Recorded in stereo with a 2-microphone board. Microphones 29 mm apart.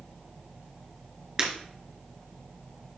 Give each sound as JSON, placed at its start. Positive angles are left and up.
{"t": 1.4, "sound": "breaking glass", "side_deg": -20, "distance_m": 2.5}